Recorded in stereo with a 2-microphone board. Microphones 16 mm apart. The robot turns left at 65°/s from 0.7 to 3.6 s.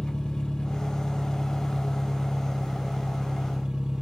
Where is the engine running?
85° left, 1.2 m; by 4.0 s 105° right, 1.2 m.